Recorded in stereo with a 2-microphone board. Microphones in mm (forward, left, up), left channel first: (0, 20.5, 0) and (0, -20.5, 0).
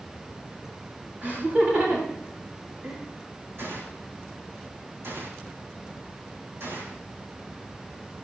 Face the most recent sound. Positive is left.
turn(degrees=-75)  # may be behind; listen again after turning